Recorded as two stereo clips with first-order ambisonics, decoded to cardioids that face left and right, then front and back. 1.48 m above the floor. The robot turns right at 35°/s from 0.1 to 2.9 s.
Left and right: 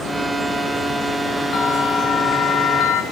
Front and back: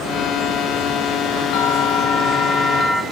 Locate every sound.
1.5 s a bell: 35° left, 0.8 m; by 3.0 s 80° left, 0.8 m